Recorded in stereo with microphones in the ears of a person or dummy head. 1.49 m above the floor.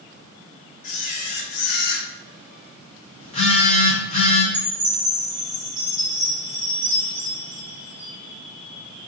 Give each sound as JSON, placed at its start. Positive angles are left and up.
{"t": 0.8, "sound": "a camera shutter", "side_deg": 40, "distance_m": 0.6}
{"t": 3.2, "sound": "a phone buzzing", "side_deg": 35, "distance_m": 0.9}
{"t": 4.5, "sound": "a chime", "side_deg": -20, "distance_m": 0.7}